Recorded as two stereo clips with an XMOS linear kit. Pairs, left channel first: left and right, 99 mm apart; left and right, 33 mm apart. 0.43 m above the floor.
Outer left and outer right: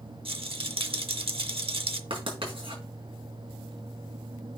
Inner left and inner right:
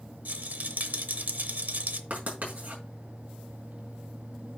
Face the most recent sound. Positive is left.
turn(degrees=-65)  # may be behind; listen again after turning